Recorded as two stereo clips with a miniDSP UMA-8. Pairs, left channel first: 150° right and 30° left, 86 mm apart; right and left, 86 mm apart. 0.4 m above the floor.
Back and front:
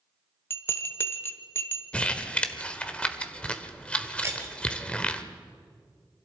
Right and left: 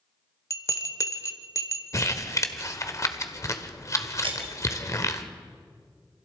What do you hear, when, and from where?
0.5 s a bell: 105° right, 1.2 m
1.9 s crumpling: 80° right, 1.2 m
4.2 s breaking glass: 90° left, 3 m